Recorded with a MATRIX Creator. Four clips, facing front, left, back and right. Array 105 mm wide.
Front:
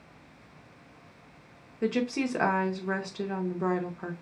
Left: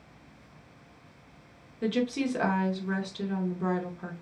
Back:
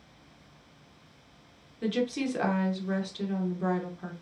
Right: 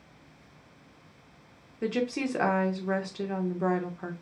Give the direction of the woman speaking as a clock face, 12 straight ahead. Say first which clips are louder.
Left 1 dB, front 1 dB; 1 o'clock.